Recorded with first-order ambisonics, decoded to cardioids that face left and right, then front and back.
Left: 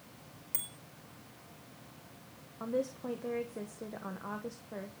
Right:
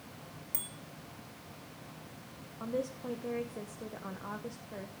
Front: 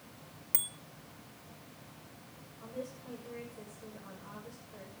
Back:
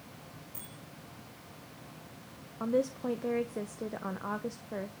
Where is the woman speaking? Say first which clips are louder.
Left 1 dB, back 13 dB; 175° left, 1.0 m.